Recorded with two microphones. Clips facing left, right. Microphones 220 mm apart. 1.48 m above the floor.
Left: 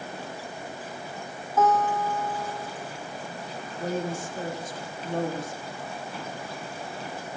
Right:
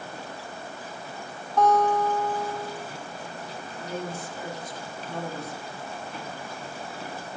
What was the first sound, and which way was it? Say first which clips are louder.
A guitar: right 2 dB; 5° left (ahead or behind).